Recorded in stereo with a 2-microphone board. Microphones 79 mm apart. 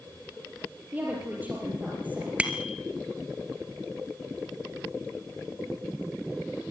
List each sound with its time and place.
0.9 s a woman speaking: 20° right (ahead or behind), 5.5 m
2.4 s a bicycle bell: 15° right (ahead or behind), 2 m